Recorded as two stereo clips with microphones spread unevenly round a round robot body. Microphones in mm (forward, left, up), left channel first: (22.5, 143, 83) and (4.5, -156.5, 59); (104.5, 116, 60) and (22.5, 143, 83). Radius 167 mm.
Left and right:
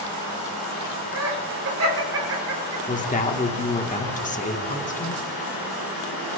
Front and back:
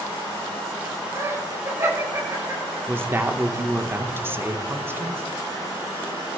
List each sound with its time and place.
1.1 s laughter: 130° right, 4.5 m
2.9 s a woman speaking: 95° left, 1.3 m